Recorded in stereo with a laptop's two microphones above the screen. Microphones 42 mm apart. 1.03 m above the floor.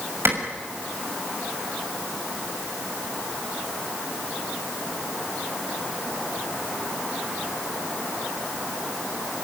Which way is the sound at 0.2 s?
75° right (ahead or behind).